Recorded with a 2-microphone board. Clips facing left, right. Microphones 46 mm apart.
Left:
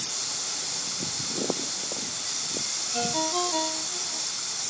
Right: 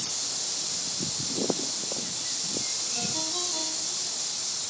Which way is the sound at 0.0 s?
55° left (ahead or behind).